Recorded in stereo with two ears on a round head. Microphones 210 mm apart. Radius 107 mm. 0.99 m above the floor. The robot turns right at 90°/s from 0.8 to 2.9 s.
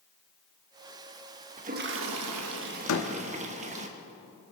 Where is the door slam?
75° left (ahead or behind), 1.3 m; by 3.1 s 80° left, 1.3 m.